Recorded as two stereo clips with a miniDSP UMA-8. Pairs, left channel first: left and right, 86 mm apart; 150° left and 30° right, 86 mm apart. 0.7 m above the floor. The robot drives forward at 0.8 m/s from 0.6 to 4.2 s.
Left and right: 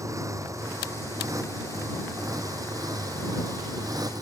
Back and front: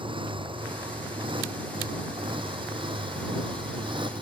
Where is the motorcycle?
40° right; by 4.2 s 45° right.